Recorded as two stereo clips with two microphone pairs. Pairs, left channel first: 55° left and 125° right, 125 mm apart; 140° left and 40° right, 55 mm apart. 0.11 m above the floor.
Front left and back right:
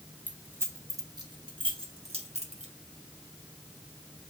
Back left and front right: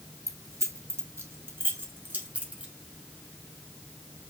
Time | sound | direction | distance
0.3 | keys jangling | 50° right | 2.5 m